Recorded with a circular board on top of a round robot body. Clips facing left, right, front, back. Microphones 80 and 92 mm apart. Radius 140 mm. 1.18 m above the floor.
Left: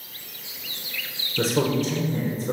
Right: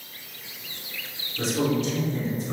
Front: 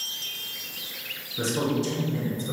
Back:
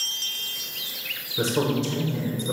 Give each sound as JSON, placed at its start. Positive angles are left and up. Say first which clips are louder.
{"t": 1.4, "sound": "a man speaking", "louder": "left 2 dB, back 2 dB", "azimuth_deg": 110, "distance_m": 1.3}